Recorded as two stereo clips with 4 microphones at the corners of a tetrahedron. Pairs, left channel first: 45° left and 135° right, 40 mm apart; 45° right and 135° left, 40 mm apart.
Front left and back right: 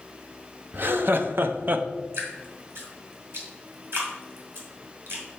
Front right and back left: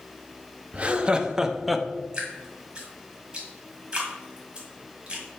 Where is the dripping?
160° right, 1.9 m.